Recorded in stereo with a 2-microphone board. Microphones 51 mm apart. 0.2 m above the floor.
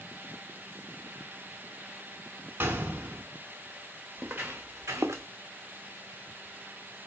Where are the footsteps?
30° right (ahead or behind), 1.1 m; by 5.2 s 65° right (ahead or behind), 0.7 m.